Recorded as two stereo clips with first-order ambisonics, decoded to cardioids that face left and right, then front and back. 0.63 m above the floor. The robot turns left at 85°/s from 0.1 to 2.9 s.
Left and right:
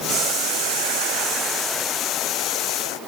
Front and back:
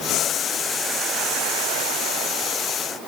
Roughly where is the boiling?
Ahead right.